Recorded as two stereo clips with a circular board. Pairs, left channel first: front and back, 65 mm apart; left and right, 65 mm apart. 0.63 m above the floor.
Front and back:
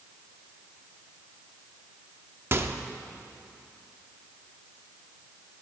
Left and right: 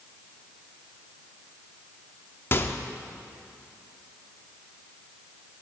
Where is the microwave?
140° left, 0.8 m.